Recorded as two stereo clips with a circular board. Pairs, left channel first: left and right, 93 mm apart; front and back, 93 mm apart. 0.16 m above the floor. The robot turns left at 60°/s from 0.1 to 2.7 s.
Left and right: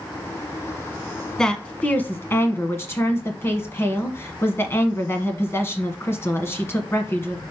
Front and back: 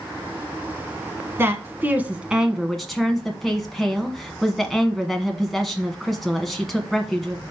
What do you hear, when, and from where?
1.4 s a woman speaking: 165° left, 1.1 m; by 7.4 s 90° left, 1.1 m